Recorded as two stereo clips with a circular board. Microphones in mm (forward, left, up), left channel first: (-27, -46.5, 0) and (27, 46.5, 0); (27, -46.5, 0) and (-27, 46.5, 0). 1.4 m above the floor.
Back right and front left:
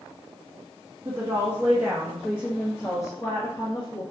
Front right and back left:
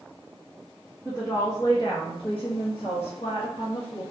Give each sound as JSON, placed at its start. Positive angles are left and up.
{"t": 1.1, "sound": "a woman speaking", "azimuth_deg": 10, "distance_m": 1.0}